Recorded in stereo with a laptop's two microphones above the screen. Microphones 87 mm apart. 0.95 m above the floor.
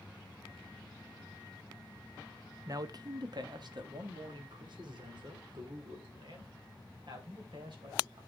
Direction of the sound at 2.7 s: 45° right (ahead or behind).